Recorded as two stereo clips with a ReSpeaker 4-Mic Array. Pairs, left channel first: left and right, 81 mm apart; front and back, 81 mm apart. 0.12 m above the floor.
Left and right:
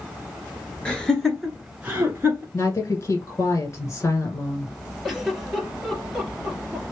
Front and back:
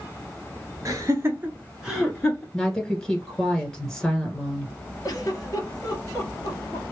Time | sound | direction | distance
0.8 | laughter | 165° left | 1.9 m
2.5 | a woman speaking | 85° left | 1.2 m
5.0 | a giggle | 5° right | 2 m